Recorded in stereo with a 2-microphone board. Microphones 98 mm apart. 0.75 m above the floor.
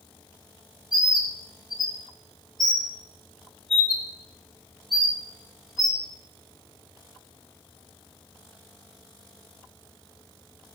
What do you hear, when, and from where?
0.9 s a bird: centre (ahead or behind), 1.0 m